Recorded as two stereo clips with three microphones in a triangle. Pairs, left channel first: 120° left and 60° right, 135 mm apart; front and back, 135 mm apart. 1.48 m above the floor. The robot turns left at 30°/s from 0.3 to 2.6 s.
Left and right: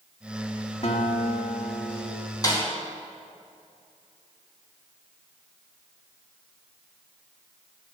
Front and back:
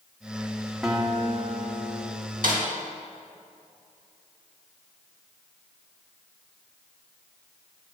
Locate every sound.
0.8 s a guitar: 95° left, 1.5 m; by 2.1 s 55° left, 1.5 m
2.4 s a snare drum: 175° right, 2.5 m; by 2.6 s straight behind, 2.5 m